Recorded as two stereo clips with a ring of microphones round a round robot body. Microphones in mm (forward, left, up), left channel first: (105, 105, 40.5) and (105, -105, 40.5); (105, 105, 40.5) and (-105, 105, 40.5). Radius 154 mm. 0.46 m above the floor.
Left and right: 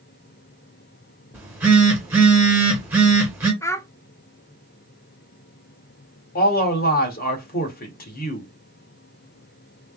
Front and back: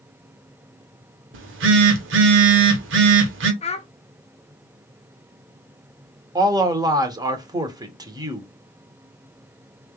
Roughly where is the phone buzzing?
Behind.